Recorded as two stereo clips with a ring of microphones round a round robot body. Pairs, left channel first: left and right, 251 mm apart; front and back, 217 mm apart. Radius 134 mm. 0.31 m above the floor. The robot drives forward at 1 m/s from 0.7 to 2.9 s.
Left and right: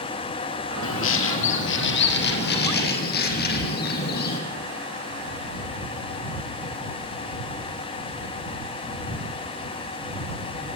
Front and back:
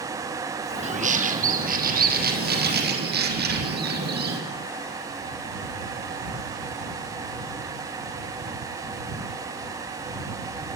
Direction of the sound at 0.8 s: 125° left.